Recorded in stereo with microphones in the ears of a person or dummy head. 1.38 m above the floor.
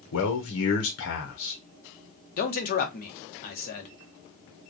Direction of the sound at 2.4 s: 50° left (ahead or behind).